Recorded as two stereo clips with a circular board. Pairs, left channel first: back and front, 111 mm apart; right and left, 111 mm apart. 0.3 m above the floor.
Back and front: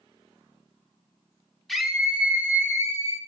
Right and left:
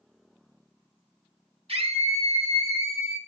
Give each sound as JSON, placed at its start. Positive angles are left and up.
{"t": 1.7, "sound": "a scream", "azimuth_deg": 95, "distance_m": 1.5}